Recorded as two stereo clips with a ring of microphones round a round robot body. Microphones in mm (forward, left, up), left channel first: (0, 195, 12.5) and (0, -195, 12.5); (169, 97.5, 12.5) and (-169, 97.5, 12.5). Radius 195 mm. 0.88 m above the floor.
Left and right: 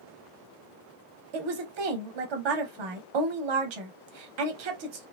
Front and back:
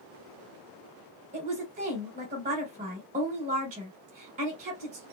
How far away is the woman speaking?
About 0.8 m.